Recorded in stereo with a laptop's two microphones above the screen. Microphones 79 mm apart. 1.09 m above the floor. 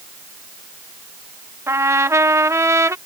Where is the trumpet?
35° right (ahead or behind).